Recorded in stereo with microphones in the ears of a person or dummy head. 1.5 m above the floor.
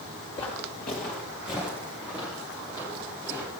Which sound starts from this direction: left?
Footsteps, at 0.4 s.